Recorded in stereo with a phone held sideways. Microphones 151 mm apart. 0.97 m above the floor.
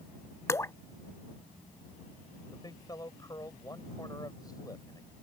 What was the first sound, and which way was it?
Dripping, 20° left (ahead or behind).